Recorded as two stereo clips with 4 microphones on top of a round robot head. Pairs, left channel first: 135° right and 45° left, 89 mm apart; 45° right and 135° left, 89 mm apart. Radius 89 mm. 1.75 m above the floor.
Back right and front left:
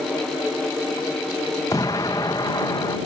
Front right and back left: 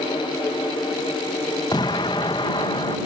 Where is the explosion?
85° right.